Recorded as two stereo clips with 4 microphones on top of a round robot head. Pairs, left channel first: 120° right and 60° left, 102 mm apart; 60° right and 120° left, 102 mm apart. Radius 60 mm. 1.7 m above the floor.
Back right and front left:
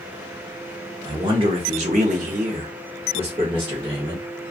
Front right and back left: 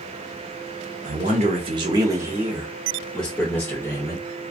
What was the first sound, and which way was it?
A man speaking, 110° left.